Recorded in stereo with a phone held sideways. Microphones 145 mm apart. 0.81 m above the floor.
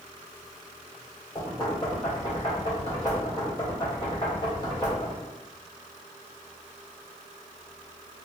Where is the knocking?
30° left (ahead or behind), 1.5 m.